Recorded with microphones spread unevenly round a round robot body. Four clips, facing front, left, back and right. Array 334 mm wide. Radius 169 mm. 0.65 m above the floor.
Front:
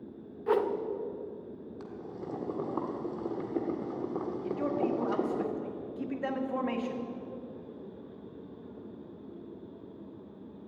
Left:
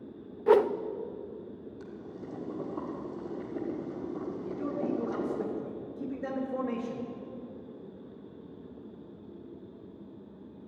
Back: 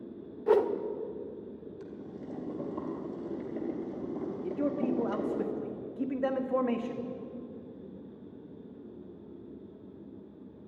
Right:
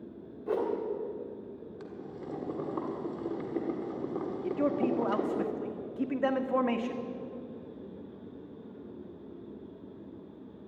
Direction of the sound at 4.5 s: 95° right.